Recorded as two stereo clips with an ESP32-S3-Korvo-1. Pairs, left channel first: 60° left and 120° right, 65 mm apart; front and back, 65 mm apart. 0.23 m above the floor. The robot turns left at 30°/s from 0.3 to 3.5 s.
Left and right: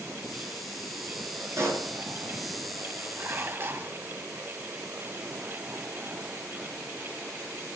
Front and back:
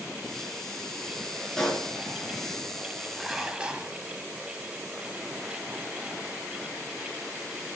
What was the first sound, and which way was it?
A pop, 80° right.